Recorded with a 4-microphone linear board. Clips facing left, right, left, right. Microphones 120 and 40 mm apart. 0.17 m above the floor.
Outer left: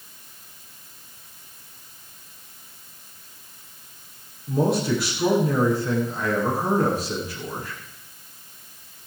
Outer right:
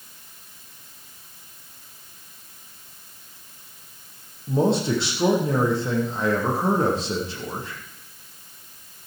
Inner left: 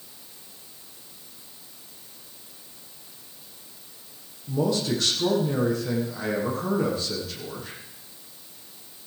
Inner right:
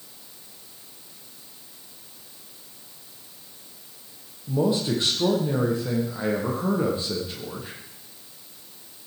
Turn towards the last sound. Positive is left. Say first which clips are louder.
# outer right 1 dB, inner right 2 dB
turn(degrees=-25)  # may be behind; listen again after turning